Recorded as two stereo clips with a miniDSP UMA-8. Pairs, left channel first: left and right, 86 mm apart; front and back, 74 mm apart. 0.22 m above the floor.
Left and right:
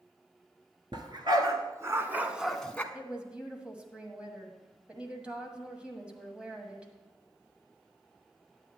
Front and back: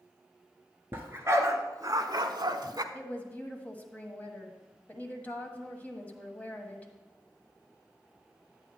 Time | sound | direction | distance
0.9 | a dog barking | 120° right | 1.3 m
2.9 | a woman speaking | 30° right | 1.3 m